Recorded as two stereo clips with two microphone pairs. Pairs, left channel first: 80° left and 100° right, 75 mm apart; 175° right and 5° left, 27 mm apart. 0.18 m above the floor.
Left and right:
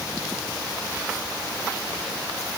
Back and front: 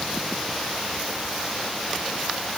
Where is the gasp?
I don't hear a gasp.